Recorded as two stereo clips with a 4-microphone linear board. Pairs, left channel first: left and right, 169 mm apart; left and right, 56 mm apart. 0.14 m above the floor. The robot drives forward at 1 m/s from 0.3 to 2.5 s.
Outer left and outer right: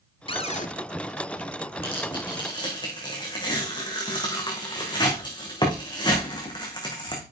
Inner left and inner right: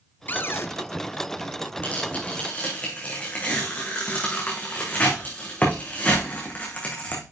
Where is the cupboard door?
35° left (ahead or behind), 0.7 m; by 0.7 s 50° left (ahead or behind), 0.5 m.